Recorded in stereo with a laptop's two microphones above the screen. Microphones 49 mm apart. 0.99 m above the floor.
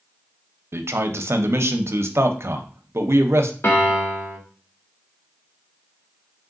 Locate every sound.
0.7 s a man speaking: 65° right (ahead or behind), 0.6 m
3.6 s a piano: 65° left (ahead or behind), 1.2 m